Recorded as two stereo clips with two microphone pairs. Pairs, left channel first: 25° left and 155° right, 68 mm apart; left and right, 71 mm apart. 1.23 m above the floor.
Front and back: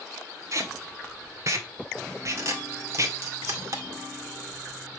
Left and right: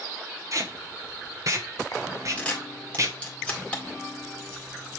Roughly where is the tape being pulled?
Behind right.